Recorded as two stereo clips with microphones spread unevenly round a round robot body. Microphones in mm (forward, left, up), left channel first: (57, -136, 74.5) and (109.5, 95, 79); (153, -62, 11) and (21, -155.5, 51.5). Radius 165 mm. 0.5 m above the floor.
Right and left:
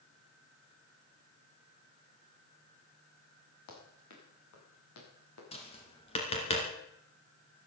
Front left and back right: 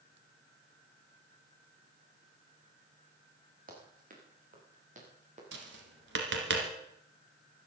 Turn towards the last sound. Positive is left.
turn(degrees=-175)